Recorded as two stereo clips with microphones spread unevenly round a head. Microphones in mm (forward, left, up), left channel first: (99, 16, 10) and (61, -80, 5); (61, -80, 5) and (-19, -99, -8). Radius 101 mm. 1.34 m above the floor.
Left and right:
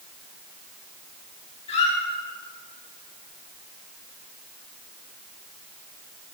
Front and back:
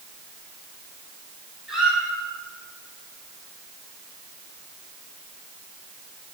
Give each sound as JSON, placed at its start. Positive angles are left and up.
{"t": 1.7, "sound": "a squeak", "azimuth_deg": 105, "distance_m": 1.7}